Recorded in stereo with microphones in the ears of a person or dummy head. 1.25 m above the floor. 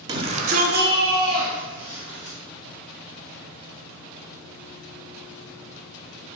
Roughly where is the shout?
Right.